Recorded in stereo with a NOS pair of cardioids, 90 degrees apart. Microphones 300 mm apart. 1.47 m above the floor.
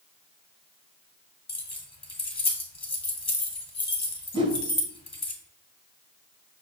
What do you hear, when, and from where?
1.5 s keys jangling: 20° left, 1.3 m
4.3 s a whoosh: 15° right, 0.8 m